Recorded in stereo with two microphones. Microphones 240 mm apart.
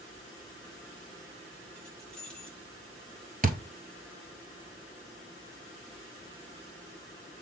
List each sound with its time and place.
1.8 s keys jangling: 5° left (ahead or behind), 5.5 m
3.4 s a thud: 40° right (ahead or behind), 1.3 m